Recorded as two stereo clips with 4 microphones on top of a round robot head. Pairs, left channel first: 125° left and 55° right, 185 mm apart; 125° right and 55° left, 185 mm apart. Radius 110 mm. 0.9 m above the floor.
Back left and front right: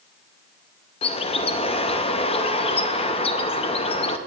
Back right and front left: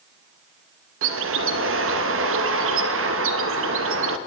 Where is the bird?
65° left, 0.6 m.